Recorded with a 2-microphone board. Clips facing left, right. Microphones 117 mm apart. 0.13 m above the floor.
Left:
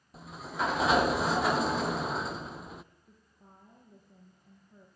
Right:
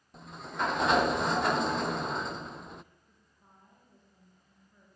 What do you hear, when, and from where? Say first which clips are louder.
0.1 s a sliding door: even; centre (ahead or behind), 0.6 m
3.1 s a woman speaking: left 5 dB; 50° left (ahead or behind), 4.5 m